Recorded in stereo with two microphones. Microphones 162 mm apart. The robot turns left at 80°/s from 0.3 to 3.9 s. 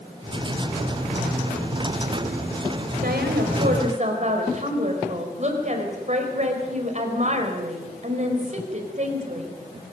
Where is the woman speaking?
65° right, 4.5 m; by 9.6 s 135° right, 4.5 m.